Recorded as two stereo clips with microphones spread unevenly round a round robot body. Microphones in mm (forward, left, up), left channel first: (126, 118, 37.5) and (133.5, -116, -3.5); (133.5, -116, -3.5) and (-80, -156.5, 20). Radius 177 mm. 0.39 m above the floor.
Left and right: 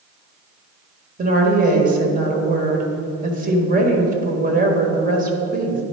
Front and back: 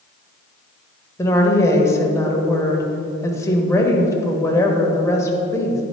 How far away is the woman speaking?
About 1.6 m.